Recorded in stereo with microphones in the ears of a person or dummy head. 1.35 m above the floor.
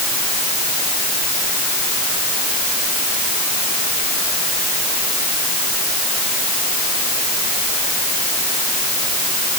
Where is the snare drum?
I don't hear a snare drum.